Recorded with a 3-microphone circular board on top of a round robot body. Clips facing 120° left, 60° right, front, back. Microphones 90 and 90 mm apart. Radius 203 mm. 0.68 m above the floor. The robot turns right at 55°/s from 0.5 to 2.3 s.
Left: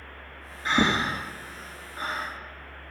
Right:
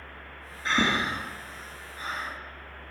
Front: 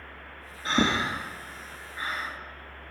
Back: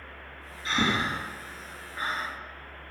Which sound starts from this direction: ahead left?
Breathing, at 0.7 s.